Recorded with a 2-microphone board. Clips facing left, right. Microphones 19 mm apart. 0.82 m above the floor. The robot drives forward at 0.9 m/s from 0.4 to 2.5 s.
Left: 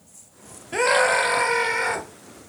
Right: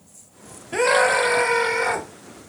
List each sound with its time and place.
0.7 s a scream: centre (ahead or behind), 0.7 m